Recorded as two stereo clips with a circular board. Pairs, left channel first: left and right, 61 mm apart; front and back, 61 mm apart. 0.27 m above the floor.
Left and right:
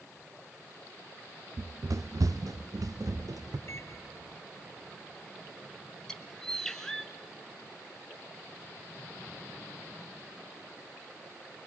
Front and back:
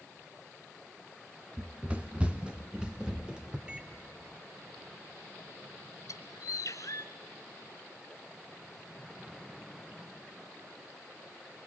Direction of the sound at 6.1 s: 10° left.